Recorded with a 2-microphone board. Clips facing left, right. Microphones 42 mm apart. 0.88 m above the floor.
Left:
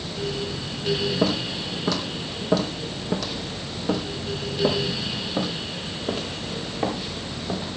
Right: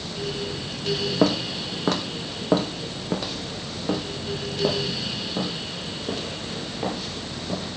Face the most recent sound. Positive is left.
turn(degrees=20)  # may be behind; listen again after turning